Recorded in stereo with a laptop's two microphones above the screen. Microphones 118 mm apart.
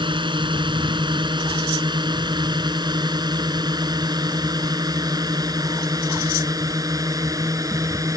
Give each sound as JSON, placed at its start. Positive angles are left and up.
{"t": 0.0, "sound": "a drone", "side_deg": -40}